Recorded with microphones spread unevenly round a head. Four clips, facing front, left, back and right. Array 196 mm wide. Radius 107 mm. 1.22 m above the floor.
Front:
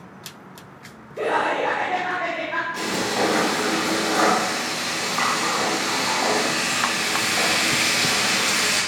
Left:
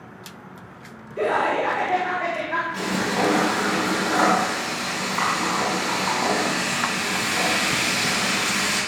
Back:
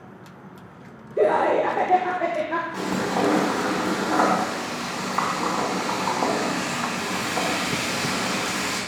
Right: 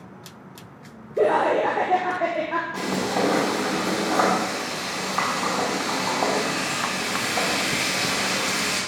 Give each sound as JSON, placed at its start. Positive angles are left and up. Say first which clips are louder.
{"t": 1.2, "sound": "laughter", "louder": "right 2 dB, back 3 dB", "azimuth_deg": -135, "distance_m": 1.0}
{"t": 2.7, "sound": "frying", "louder": "even, even", "azimuth_deg": -140, "distance_m": 3.0}